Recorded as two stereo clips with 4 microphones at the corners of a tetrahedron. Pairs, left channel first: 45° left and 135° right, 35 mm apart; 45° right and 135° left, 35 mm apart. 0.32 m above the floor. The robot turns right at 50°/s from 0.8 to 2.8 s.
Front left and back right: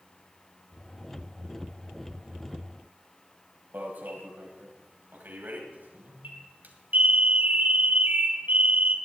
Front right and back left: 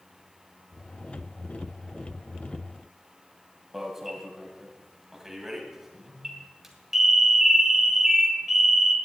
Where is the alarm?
145° right, 1.9 m.